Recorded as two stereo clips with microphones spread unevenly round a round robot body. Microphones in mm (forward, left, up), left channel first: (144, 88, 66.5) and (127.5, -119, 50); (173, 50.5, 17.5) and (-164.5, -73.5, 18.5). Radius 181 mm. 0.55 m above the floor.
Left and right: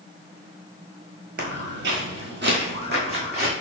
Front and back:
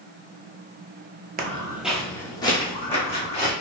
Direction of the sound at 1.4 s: 110° right.